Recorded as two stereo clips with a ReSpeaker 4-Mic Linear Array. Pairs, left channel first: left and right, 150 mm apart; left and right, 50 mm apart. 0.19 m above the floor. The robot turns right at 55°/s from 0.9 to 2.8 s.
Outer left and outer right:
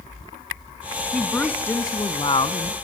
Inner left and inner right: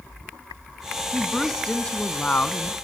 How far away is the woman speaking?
About 1.3 m.